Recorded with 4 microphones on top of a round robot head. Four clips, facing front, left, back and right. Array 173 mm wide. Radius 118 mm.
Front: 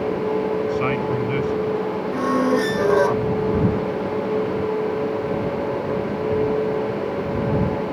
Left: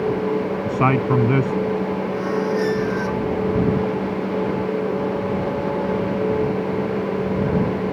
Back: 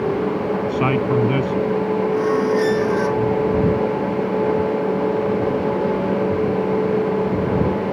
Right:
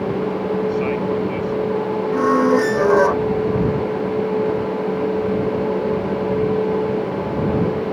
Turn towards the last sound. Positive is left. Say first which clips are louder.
# right 9 dB, front 1 dB
turn(degrees=-70)